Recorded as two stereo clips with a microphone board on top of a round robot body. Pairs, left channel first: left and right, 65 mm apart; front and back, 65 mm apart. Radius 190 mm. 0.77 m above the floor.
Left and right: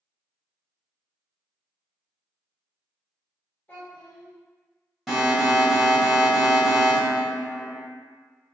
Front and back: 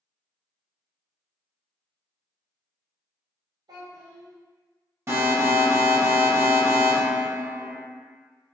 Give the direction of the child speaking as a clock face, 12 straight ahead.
7 o'clock.